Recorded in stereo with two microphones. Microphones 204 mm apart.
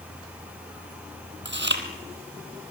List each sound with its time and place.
1.4 s chewing: 55° right (ahead or behind), 2.5 m